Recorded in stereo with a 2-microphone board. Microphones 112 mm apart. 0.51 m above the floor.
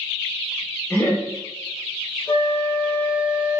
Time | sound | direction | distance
0.9 | laughter | 20° left (ahead or behind) | 0.8 m
2.3 | a flute | 20° left (ahead or behind) | 1.6 m